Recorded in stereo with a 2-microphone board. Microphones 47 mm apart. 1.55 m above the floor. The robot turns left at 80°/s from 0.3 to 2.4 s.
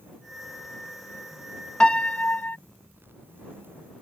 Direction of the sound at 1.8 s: 155° left.